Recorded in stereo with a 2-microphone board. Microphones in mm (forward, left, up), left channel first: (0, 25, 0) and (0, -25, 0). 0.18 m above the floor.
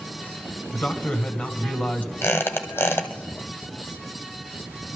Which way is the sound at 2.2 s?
50° left (ahead or behind).